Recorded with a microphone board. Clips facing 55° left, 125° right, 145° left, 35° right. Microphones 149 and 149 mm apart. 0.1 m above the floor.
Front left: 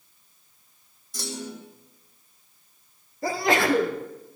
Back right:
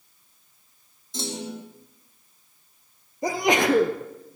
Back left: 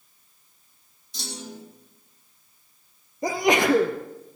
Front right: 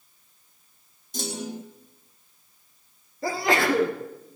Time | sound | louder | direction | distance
1.1 | a clunk | back right 3 dB, front right 6 dB | 65° right | 1.8 m
3.2 | a sneeze | back right 1 dB, back left 3 dB | 170° right | 1.6 m